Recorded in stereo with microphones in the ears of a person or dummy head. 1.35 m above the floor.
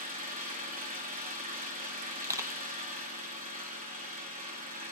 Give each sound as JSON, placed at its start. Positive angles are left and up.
{"t": 0.0, "sound": "an engine running", "side_deg": -35, "distance_m": 1.1}
{"t": 2.2, "sound": "crushing", "side_deg": -15, "distance_m": 0.8}